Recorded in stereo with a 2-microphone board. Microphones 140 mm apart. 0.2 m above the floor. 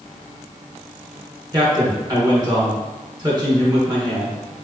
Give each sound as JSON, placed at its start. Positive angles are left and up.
{"t": 1.5, "sound": "a man speaking", "side_deg": -30, "distance_m": 1.9}